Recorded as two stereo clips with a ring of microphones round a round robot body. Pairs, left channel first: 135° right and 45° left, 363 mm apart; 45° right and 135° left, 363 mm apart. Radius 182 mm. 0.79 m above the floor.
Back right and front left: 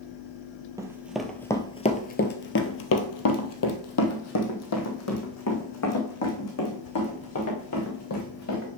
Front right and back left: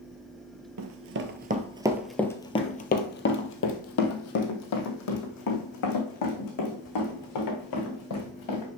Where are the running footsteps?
120° left, 0.9 m; by 8.7 s 85° right, 4 m.